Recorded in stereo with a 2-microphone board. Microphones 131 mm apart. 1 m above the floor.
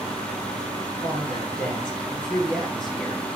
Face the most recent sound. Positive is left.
turn(degrees=35)  # may be behind; listen again after turning